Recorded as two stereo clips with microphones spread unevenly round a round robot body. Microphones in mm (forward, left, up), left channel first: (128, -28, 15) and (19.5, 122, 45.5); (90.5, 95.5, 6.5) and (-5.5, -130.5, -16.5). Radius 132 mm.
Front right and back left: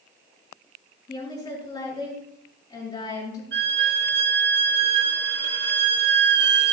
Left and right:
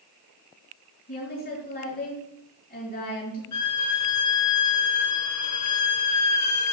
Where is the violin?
100° left, 1.1 m.